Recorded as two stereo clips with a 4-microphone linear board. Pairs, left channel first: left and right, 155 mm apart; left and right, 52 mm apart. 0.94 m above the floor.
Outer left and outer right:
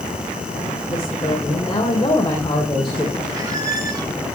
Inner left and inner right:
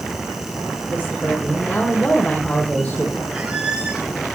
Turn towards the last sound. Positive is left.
turn(degrees=-25)  # may be behind; listen again after turning